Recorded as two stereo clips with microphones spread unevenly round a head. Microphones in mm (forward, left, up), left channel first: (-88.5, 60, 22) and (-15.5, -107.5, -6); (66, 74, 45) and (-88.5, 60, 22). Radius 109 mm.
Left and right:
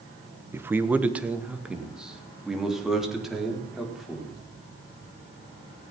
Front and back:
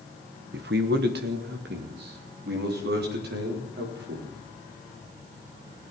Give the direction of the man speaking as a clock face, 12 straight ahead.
5 o'clock.